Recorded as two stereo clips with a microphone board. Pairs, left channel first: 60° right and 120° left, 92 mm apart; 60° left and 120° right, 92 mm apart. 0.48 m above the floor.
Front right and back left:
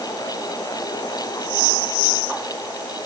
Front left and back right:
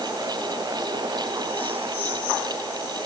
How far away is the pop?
I don't hear a pop.